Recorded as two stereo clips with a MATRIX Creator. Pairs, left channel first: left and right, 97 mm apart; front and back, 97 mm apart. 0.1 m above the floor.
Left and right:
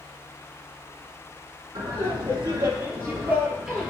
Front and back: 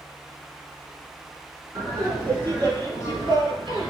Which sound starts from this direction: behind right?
Laughter, at 1.8 s.